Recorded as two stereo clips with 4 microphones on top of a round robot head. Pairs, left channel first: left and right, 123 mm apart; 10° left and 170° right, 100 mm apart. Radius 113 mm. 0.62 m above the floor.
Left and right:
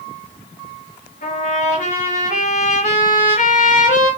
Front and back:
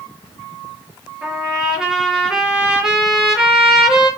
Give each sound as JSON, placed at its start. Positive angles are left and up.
{"t": 1.2, "sound": "a trumpet", "azimuth_deg": 105, "distance_m": 8.5}